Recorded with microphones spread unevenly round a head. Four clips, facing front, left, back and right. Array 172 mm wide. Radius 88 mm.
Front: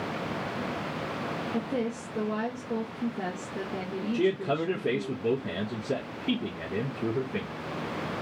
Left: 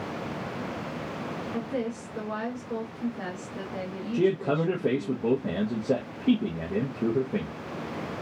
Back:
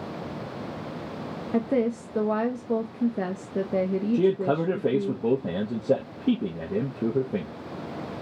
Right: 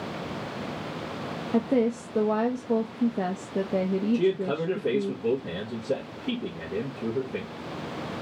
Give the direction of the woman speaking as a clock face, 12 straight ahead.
4 o'clock.